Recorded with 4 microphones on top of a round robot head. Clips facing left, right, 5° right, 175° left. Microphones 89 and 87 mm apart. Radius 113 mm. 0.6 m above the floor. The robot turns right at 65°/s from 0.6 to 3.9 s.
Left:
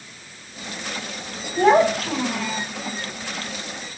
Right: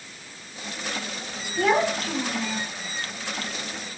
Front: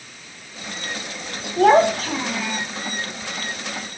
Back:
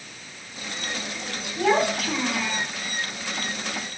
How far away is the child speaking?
About 4 m.